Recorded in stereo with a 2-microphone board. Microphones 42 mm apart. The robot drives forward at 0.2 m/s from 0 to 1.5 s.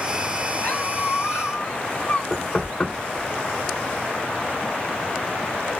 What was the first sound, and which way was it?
A squeak, 45° left (ahead or behind).